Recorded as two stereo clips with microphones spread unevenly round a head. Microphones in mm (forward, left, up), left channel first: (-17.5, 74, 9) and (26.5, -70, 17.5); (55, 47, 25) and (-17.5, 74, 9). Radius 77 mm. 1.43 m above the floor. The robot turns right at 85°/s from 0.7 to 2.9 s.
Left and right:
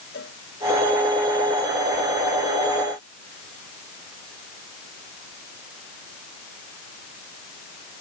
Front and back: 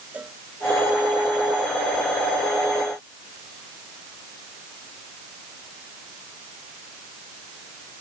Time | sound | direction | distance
0.1 | a cowbell | 85° left | ?